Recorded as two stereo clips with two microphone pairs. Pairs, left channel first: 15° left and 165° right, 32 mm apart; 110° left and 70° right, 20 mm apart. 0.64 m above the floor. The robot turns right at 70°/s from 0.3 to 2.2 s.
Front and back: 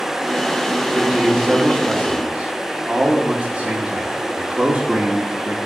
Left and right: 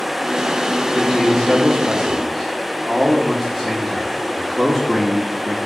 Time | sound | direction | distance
0.9 | a man speaking | 110° left | 1.8 m